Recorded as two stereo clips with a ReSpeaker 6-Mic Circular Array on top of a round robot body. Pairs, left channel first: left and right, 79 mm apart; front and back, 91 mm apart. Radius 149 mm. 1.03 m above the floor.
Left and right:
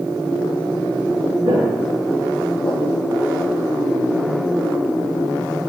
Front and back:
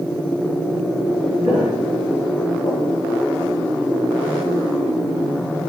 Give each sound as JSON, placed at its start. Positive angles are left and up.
{"t": 1.4, "sound": "footsteps", "azimuth_deg": -95, "distance_m": 1.7}